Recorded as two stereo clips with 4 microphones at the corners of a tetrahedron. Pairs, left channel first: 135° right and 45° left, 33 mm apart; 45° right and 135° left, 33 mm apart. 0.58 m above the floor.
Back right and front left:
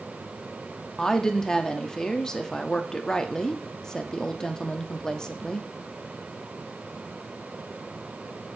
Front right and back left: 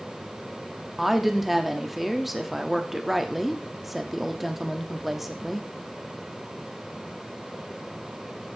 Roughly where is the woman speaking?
Behind right.